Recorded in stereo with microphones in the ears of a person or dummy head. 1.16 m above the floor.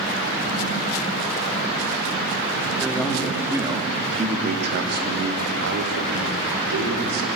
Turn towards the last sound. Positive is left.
turn(degrees=-90)